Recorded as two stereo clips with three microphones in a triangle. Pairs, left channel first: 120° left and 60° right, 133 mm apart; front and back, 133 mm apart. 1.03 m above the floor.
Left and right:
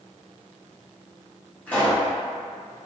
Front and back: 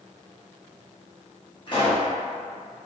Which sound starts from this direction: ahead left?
A pop, at 1.7 s.